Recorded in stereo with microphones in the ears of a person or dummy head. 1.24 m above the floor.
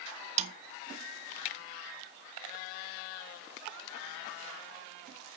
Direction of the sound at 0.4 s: 40° right (ahead or behind).